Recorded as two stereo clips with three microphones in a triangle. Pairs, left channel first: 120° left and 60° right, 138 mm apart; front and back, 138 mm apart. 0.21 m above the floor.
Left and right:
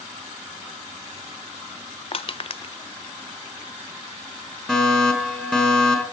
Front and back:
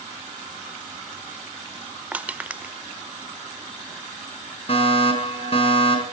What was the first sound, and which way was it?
Crushing, 105° left.